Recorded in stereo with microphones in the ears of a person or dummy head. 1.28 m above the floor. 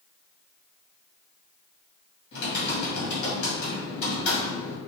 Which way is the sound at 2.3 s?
70° left (ahead or behind).